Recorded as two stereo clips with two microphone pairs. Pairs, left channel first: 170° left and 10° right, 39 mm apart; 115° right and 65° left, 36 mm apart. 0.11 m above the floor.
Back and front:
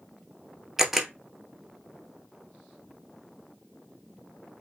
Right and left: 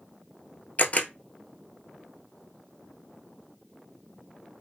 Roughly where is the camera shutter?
Right.